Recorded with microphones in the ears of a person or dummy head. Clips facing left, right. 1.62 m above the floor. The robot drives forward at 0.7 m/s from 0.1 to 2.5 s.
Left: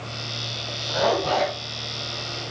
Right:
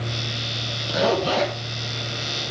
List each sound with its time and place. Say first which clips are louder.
0.9 s a zipper: right 1 dB; 35° right (ahead or behind), 5 m; by 2.5 s 45° right (ahead or behind), 4 m